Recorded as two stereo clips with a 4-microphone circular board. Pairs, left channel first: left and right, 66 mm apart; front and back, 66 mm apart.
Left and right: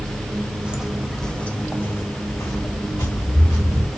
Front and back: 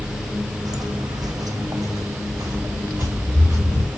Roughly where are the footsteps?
Behind.